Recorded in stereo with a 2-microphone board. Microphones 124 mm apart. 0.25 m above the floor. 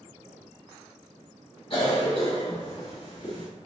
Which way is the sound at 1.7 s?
45° left (ahead or behind).